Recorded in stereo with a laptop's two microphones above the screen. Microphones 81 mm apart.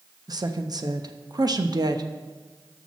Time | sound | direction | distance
0.3 | a woman speaking | 55° right (ahead or behind) | 0.8 m